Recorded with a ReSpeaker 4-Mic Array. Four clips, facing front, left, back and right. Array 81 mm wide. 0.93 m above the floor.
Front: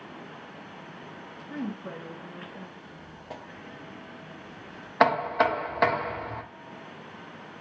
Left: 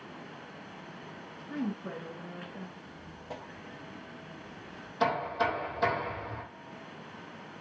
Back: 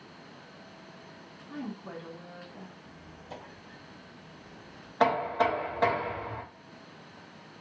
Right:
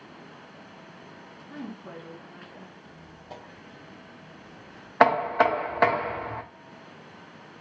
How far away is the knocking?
About 0.6 m.